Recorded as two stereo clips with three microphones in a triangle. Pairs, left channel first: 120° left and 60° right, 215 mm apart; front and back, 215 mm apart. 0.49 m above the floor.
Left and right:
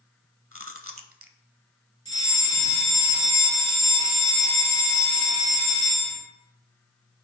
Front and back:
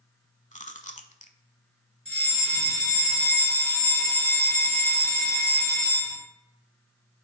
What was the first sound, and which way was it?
Chewing, 60° right.